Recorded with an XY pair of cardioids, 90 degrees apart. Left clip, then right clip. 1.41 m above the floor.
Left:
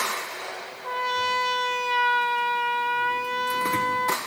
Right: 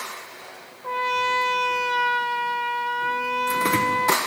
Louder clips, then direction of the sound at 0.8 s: Right 2 dB; 5° right.